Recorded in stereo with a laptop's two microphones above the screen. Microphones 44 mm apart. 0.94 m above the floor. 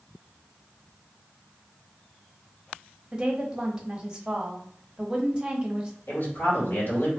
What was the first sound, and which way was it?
A woman speaking, 20° right (ahead or behind).